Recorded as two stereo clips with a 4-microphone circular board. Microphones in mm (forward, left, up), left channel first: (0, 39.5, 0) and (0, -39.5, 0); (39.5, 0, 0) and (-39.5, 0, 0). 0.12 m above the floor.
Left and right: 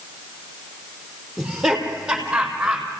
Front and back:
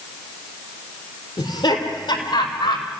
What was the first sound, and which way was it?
Laughter, 10° right.